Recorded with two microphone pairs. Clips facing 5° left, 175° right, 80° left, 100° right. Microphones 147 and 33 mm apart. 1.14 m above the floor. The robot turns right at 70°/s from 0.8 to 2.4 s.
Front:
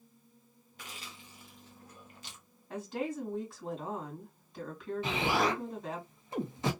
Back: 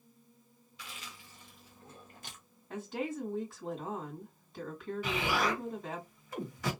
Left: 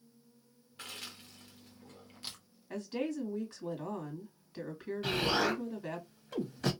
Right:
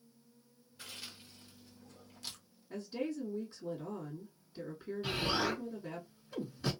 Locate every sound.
0.8 s chewing: 50° left, 1.0 m; by 2.4 s 160° left, 1.0 m
2.7 s a woman speaking: 100° left, 2 m
5.0 s an explosion: 75° left, 1.2 m